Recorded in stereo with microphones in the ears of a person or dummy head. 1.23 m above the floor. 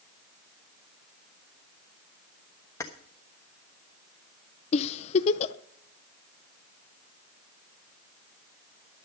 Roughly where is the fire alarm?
No fire alarm in this recording.